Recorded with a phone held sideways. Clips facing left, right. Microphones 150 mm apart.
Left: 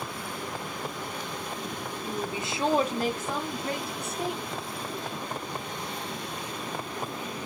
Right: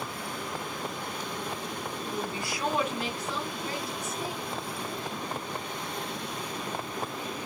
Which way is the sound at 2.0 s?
5° left (ahead or behind).